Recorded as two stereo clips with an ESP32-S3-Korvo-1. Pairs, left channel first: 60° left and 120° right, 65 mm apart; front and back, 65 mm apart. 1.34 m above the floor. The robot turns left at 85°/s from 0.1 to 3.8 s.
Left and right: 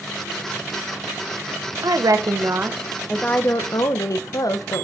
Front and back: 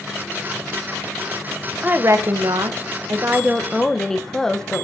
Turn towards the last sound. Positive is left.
turn(degrees=80)